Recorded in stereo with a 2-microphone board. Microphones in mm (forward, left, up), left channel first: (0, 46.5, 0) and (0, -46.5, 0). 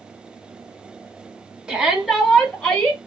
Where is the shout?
10° right (ahead or behind), 1.1 m; by 3.0 s 10° left (ahead or behind), 1.3 m.